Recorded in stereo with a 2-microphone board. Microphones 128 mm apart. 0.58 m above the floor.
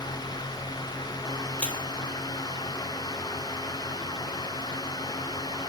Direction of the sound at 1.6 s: 10° left (ahead or behind).